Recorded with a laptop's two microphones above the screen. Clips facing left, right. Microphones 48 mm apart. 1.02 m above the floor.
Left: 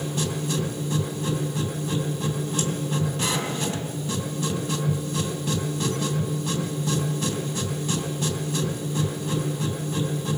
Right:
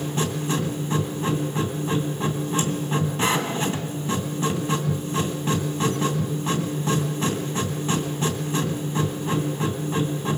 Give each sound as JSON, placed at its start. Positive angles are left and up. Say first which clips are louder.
{"t": 0.0, "sound": "a machine running", "louder": "right 2 dB", "side_deg": -35, "distance_m": 2.5}